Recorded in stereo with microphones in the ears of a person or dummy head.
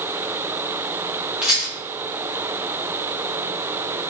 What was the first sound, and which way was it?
A rattle, 10° right (ahead or behind).